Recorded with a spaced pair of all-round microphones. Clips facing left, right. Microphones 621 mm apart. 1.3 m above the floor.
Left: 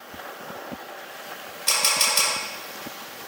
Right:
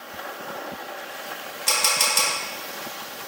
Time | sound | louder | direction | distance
1.7 | a camera shutter | right 1 dB | 70° right (ahead or behind) | 1.1 m